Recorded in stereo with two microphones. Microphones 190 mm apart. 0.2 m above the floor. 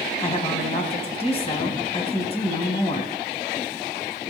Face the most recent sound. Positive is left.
turn(degrees=30)  # may be behind; listen again after turning